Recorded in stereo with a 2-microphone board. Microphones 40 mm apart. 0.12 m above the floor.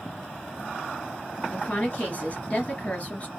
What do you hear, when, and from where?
1.5 s a woman speaking: 35° left (ahead or behind), 2 m